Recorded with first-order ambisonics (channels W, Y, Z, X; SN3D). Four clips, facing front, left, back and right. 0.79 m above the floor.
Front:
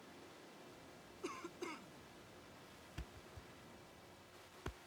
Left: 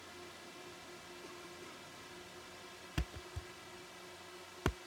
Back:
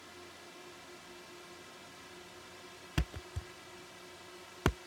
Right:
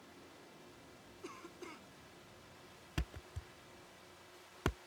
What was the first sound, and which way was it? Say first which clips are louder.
A drone: left 6 dB, back 7 dB; 140° left.